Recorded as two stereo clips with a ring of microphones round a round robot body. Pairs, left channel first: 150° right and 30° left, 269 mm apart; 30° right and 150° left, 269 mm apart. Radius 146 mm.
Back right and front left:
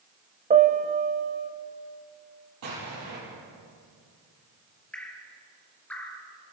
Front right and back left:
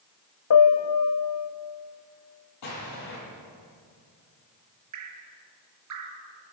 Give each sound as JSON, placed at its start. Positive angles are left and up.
{"t": 0.5, "sound": "a piano", "azimuth_deg": -30, "distance_m": 1.5}
{"t": 2.6, "sound": "an explosion", "azimuth_deg": -5, "distance_m": 10.0}
{"t": 4.9, "sound": "dripping", "azimuth_deg": 125, "distance_m": 3.0}